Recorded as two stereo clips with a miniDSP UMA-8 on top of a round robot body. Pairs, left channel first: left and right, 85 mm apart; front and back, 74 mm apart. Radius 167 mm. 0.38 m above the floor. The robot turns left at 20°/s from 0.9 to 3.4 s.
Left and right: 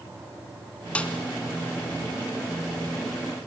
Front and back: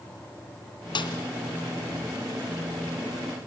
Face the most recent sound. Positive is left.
turn(degrees=-35)